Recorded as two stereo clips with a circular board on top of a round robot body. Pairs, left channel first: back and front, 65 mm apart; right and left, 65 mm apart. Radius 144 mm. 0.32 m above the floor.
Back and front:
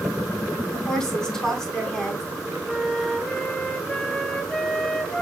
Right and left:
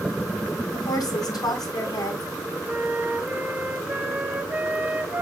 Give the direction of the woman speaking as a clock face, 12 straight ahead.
3 o'clock.